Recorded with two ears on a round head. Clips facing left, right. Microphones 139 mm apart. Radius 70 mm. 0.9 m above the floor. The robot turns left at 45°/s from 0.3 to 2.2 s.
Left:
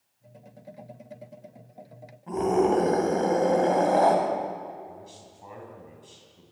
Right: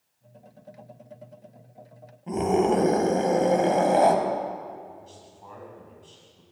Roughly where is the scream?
Right.